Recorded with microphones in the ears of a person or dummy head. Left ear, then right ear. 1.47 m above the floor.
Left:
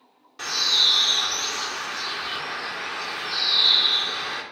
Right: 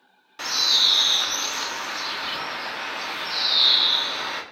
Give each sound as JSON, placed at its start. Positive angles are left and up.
{"t": 0.4, "sound": "a bird", "side_deg": -20, "distance_m": 0.5}